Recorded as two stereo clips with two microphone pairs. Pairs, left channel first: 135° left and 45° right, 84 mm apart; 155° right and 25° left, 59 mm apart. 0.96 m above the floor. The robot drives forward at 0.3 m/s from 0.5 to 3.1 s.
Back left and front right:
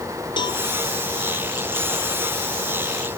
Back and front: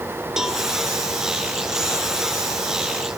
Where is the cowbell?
105° left, 1.1 m; by 0.6 s 110° left, 1.1 m.